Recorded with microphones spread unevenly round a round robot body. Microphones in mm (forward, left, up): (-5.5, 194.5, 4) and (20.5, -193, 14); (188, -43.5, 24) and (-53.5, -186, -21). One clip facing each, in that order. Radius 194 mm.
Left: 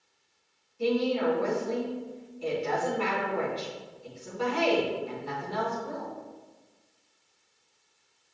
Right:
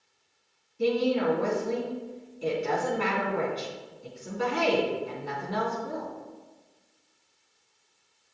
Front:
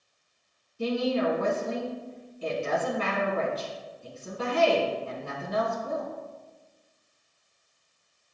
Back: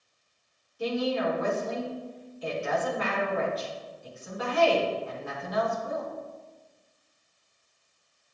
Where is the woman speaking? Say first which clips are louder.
Right 1 dB, front 2 dB; 20° right, 3.5 m.